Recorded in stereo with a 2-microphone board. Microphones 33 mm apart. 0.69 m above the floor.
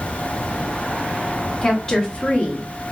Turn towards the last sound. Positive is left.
turn(degrees=45)  # may be behind; listen again after turning